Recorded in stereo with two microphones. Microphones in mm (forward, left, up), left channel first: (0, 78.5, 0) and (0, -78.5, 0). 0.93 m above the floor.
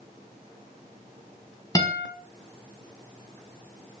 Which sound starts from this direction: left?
A guitar, at 1.8 s.